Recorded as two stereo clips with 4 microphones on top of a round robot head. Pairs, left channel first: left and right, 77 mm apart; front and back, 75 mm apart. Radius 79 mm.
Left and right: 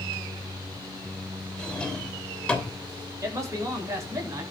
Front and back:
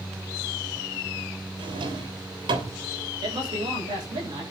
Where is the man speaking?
140° right, 8 m.